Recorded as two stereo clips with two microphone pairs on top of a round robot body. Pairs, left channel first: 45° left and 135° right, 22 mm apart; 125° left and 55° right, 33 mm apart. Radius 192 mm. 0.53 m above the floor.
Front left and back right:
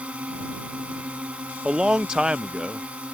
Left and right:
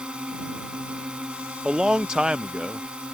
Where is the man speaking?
105° right.